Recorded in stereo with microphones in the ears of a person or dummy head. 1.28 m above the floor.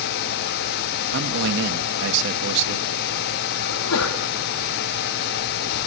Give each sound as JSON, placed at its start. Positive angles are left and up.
{"t": 1.1, "sound": "a man speaking", "side_deg": -60, "distance_m": 1.5}
{"t": 3.7, "sound": "a sneeze", "side_deg": 85, "distance_m": 2.5}